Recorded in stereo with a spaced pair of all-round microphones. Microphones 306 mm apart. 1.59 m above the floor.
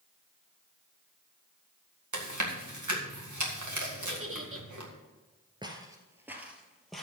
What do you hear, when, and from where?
2.1 s chewing: 70° right (ahead or behind), 1.9 m
4.1 s a giggle: 45° right (ahead or behind), 1.1 m
5.6 s footsteps: 15° right (ahead or behind), 1.7 m; by 7.0 s centre (ahead or behind), 2.5 m